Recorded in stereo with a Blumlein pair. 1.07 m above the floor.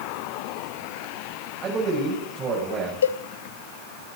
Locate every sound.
1.6 s a man speaking: 20° right, 6.5 m
3.0 s a cowbell: 65° left, 0.8 m